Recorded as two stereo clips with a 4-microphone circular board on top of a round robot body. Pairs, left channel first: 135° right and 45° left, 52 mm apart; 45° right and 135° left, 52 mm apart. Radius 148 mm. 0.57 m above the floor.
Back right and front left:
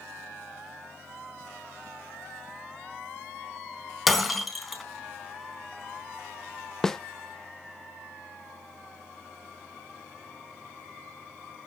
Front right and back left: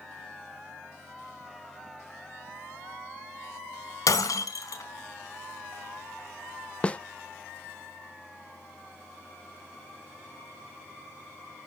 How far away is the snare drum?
About 0.7 m.